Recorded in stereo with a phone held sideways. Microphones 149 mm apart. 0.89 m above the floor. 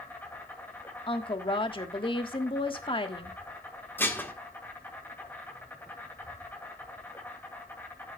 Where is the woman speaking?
35° left (ahead or behind), 1.5 m.